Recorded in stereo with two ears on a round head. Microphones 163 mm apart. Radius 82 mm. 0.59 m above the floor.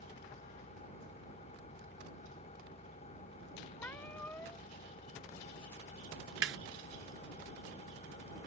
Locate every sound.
0.0 s an engine running: 40° left (ahead or behind)
3.8 s a cat meowing: 10° left (ahead or behind)
6.4 s a snare drum: 70° right (ahead or behind)